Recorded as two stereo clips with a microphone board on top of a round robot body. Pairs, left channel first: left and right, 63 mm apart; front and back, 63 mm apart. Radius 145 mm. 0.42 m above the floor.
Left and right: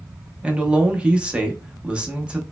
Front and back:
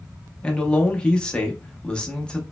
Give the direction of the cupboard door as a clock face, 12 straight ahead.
I don't hear a cupboard door.